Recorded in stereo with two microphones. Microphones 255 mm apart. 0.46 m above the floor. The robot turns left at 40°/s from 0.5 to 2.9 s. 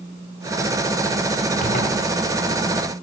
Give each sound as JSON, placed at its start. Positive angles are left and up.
{"t": 1.6, "sound": "a zipper", "side_deg": 40, "distance_m": 1.3}